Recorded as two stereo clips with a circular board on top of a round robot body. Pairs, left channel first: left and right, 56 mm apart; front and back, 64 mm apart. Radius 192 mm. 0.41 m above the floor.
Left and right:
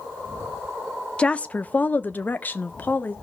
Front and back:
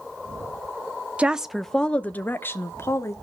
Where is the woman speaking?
135° left, 0.7 m; by 3.1 s 35° left, 1.2 m.